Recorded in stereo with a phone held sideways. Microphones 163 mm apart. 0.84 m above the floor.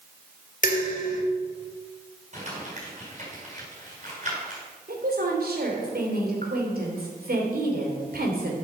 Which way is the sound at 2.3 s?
50° right (ahead or behind).